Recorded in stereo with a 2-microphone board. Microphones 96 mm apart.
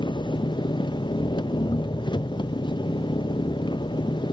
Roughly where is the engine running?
Left.